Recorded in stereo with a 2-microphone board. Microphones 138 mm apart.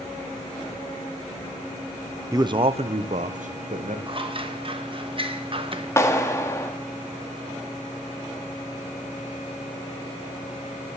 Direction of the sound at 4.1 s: 40° right (ahead or behind).